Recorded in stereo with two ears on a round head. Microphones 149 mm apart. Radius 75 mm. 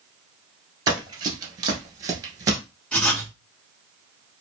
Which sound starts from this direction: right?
Running footsteps, at 0.9 s.